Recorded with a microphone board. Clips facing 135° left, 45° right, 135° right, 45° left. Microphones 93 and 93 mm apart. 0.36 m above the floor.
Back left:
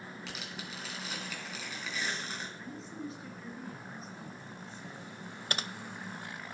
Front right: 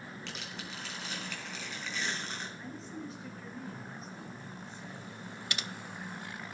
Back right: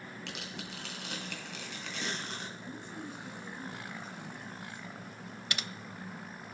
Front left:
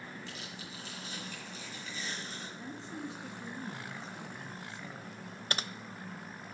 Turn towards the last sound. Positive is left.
turn(degrees=95)